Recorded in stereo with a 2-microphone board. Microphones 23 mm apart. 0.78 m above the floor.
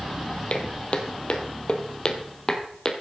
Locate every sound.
0.5 s footsteps: 60° left (ahead or behind), 1.4 m; by 2.9 s 25° left (ahead or behind), 1.5 m